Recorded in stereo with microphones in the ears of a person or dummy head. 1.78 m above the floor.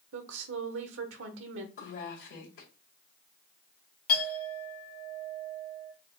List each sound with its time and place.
0.1 s a woman speaking: 80° right, 0.9 m
1.8 s a woman speaking: 65° left (ahead or behind), 1.6 m
4.1 s a clink: 45° left (ahead or behind), 1.0 m